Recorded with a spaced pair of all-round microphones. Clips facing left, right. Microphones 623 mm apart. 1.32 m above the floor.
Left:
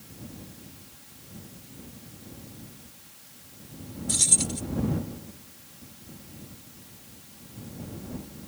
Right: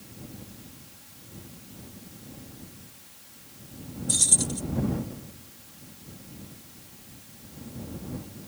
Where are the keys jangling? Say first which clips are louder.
Even; 75° left (ahead or behind).